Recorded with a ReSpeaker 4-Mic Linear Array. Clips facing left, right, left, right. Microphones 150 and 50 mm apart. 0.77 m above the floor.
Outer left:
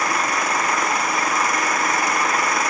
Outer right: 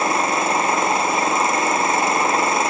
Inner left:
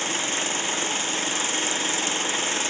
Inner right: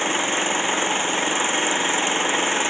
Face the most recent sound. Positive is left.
turn(degrees=-25)  # may be behind; listen again after turning